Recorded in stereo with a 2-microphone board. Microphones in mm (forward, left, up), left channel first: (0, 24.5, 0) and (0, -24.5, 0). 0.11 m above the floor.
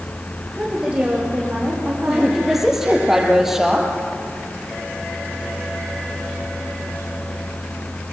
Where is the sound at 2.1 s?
5° right (ahead or behind), 4 m.